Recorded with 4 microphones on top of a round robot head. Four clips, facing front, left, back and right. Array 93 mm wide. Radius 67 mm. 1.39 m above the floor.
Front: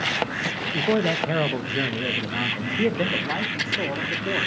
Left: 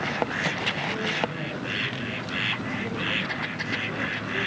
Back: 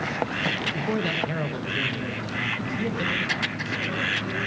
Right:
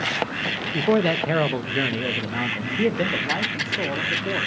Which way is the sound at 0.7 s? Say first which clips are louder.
Right 8 dB, front 8 dB; 70° right.